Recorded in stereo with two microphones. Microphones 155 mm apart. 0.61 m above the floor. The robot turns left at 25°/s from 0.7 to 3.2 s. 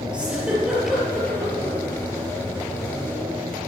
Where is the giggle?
5° right (ahead or behind), 4 m; by 1.8 s 20° left (ahead or behind), 4 m.